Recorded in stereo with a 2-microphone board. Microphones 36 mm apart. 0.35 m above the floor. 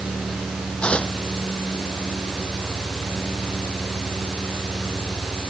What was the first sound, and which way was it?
Tearing paper, 30° left (ahead or behind).